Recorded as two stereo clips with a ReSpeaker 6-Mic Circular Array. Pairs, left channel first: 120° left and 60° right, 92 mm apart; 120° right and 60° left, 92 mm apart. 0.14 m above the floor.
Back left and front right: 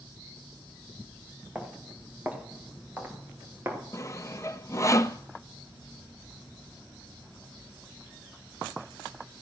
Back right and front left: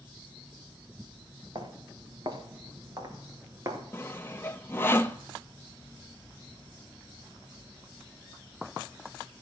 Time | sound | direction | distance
1.6 | footsteps | 15° left | 4.5 m
3.9 | sawing | 175° left | 0.7 m